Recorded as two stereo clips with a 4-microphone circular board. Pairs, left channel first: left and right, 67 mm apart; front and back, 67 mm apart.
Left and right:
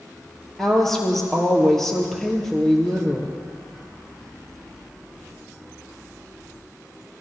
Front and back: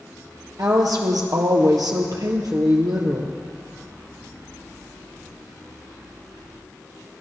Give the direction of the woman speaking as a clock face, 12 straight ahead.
6 o'clock.